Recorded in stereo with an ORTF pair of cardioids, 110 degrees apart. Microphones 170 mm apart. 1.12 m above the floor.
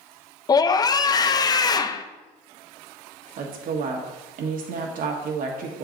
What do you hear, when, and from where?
0.5 s a scream: 25° left, 0.7 m
3.4 s a woman speaking: 65° right, 1.4 m